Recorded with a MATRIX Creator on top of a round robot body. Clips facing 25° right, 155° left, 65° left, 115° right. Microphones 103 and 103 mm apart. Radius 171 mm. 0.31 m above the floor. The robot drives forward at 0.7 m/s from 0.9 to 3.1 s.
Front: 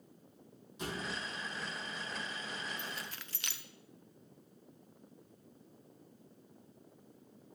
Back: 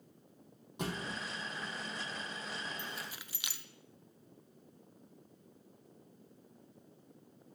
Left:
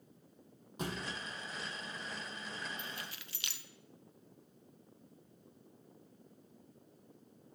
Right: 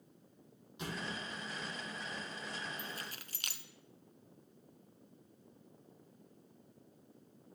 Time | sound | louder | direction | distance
0.8 | a thud | back 1 dB, left 2 dB | 120° left | 1.9 m
2.8 | keys jangling | even, even | 90° right | 0.6 m